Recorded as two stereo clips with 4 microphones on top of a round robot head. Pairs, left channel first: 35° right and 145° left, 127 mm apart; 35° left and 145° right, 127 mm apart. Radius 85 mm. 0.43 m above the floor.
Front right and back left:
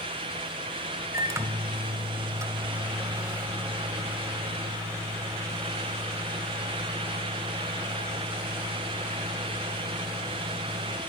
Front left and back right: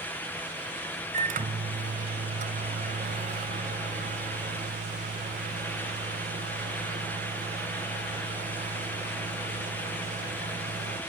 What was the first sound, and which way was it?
A microwave, 145° right.